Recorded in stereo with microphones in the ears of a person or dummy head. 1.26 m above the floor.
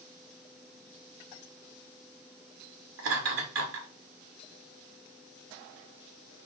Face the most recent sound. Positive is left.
turn(degrees=-55)  # may be behind; listen again after turning